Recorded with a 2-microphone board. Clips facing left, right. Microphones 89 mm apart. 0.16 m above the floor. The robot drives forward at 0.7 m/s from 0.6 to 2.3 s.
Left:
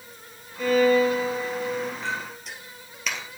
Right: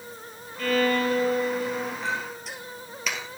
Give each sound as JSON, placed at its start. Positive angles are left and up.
{"t": 0.6, "sound": "a violin", "side_deg": 10, "distance_m": 0.8}
{"t": 2.0, "sound": "a clink", "side_deg": 0, "distance_m": 2.5}